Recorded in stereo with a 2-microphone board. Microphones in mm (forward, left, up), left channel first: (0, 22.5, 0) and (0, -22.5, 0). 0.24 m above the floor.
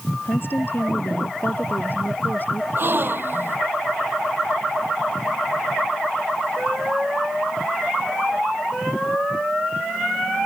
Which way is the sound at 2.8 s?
50° right (ahead or behind).